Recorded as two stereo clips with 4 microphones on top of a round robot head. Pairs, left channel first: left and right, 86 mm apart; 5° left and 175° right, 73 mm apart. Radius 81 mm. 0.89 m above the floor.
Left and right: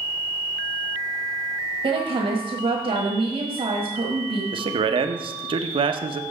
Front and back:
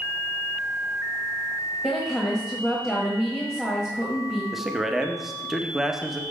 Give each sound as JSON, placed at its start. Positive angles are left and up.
{"t": 1.8, "sound": "a woman speaking", "azimuth_deg": -85, "distance_m": 1.6}
{"t": 4.5, "sound": "a man speaking", "azimuth_deg": -90, "distance_m": 0.7}